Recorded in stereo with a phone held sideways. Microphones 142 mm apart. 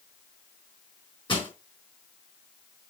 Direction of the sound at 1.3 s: 35° left (ahead or behind).